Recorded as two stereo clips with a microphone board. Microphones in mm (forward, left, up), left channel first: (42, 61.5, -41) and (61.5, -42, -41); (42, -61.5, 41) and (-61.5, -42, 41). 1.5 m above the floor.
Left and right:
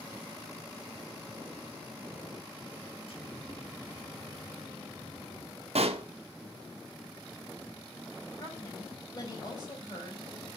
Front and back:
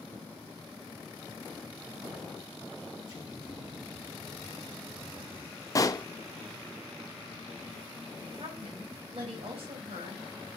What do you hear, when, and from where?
3.1 s an explosion: 120° left, 3.5 m
5.8 s a pop: 70° right, 0.6 m
8.4 s a woman speaking: 150° left, 3.5 m